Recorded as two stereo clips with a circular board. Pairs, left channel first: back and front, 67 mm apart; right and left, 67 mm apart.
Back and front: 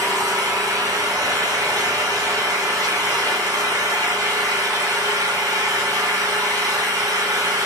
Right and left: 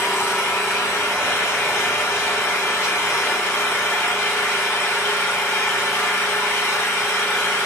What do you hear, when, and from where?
0.0 s an engine running: 35° right, 1.2 m